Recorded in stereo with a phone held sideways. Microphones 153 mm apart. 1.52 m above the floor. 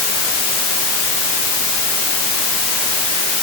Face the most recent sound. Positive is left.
No sound to turn to.